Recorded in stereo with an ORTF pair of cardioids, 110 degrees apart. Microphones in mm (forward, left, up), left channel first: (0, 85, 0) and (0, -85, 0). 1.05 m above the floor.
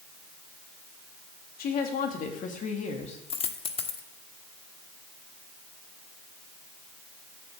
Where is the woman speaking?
65° left, 2.5 m; by 3.2 s 40° left, 2 m.